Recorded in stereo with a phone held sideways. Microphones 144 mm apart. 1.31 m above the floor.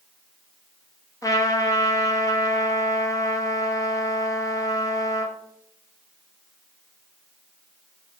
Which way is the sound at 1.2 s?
25° left (ahead or behind).